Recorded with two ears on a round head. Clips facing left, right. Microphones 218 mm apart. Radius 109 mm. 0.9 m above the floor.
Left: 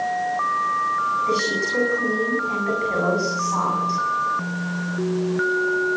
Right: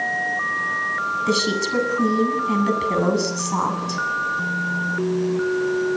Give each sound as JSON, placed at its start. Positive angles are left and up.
{"t": 1.3, "sound": "a woman speaking", "side_deg": -55, "distance_m": 8.0}